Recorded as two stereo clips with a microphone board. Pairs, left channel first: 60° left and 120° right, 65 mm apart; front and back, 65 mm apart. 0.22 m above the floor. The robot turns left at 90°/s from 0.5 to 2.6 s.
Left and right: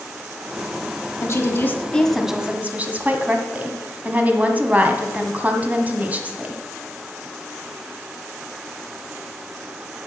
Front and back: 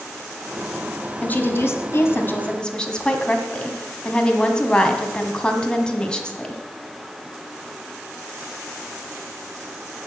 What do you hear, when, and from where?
1.2 s a woman speaking: 60° left, 1.5 m; by 6.6 s 65° right, 1.5 m